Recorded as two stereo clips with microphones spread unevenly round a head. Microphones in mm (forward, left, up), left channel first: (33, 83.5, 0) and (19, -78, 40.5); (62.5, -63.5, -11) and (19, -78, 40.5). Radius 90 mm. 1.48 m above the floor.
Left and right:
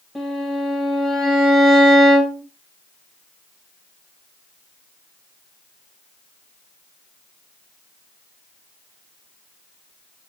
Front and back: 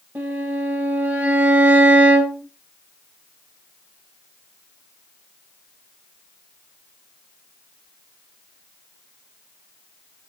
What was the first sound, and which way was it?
A violin, straight behind.